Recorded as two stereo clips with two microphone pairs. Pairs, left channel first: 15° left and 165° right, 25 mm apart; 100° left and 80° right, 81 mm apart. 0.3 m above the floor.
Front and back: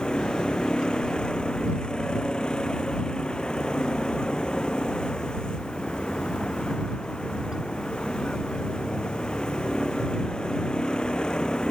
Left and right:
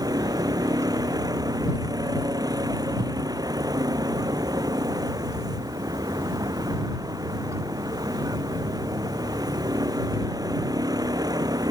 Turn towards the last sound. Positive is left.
turn(degrees=-40)